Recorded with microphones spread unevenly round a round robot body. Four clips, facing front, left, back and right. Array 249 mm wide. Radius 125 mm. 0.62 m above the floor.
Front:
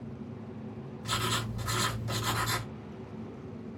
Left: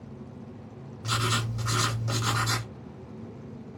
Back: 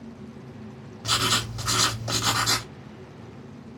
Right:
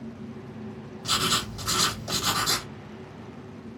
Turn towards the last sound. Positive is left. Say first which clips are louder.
# right 1 dB, back 6 dB
turn(degrees=180)